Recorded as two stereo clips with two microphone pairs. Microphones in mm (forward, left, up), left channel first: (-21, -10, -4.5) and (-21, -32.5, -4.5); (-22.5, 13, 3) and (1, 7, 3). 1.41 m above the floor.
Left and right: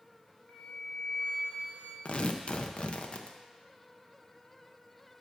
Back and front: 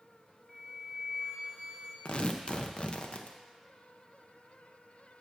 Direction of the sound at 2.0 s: 125° left.